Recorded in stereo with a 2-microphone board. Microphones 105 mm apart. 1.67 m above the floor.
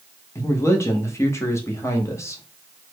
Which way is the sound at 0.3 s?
25° left (ahead or behind).